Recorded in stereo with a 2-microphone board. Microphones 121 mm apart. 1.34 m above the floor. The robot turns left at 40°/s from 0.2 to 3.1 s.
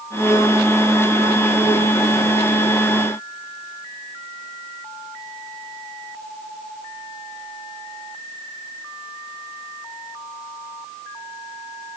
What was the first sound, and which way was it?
Only background noise.